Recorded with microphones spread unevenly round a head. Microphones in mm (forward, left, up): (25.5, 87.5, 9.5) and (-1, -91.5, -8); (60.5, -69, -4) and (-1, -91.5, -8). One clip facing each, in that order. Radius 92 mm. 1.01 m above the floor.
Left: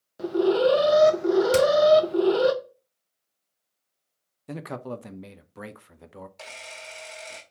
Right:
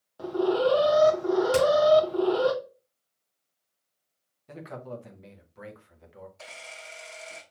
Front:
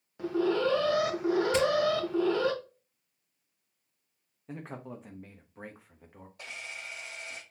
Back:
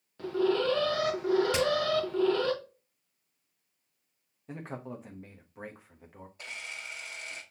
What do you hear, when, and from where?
0.2 s an alarm: 75° left, 0.9 m
1.5 s hammering: 145° left, 2.5 m
4.5 s a man speaking: 110° left, 0.6 m
6.4 s a camera shutter: 80° left, 2.5 m